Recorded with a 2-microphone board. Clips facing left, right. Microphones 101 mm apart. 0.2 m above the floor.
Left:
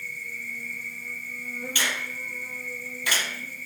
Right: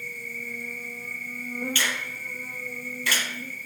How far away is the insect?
About 0.9 m.